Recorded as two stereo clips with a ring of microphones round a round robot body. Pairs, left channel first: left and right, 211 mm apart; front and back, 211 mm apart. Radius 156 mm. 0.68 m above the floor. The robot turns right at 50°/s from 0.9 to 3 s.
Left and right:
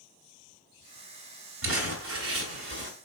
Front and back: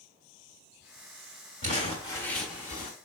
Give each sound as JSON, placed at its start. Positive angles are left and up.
{"t": 1.6, "sound": "crumpling", "azimuth_deg": -120, "distance_m": 1.5}